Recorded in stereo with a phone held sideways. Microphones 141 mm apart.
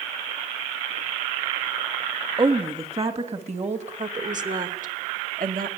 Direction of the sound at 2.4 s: 40° right (ahead or behind).